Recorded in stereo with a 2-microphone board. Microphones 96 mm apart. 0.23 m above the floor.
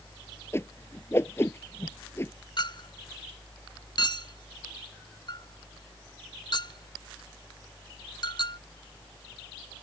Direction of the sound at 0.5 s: 25° left (ahead or behind).